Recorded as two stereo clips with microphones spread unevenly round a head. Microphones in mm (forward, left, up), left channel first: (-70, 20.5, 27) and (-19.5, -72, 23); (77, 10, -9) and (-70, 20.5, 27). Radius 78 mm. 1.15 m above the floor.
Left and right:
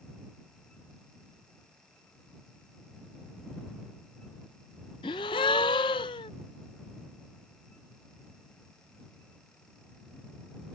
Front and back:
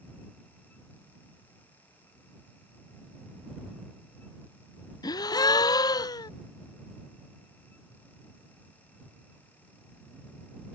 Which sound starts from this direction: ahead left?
A gasp, at 5.0 s.